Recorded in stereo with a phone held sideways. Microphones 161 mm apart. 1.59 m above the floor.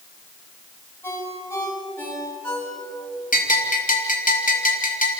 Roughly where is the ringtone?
Centre.